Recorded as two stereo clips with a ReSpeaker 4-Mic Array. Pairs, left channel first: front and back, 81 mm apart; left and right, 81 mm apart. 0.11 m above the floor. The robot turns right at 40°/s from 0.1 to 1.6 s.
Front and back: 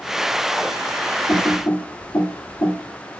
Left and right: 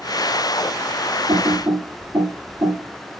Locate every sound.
1.3 s typing on a keyboard: 75° right, 1.5 m; by 2.8 s 60° right, 1.5 m